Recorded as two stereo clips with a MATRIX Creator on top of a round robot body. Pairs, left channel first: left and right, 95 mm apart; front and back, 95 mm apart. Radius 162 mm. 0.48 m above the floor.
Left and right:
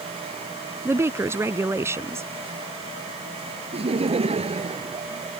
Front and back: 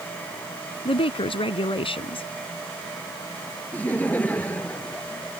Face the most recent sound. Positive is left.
turn(degrees=-75)